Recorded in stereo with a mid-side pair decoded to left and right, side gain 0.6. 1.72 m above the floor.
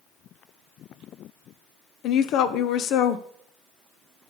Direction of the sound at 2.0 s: 65° left.